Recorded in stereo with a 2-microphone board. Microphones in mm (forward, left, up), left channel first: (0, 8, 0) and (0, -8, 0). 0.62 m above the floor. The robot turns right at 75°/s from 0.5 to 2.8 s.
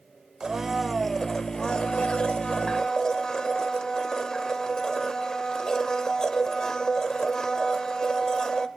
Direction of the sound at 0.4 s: 35° right.